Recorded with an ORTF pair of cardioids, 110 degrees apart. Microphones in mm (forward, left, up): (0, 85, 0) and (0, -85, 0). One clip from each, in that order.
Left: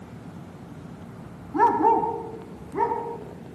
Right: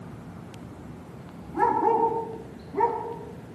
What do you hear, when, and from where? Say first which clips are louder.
1.5 s a dog barking: left 3 dB; 40° left, 5 m; by 3.6 s 20° left, 6.5 m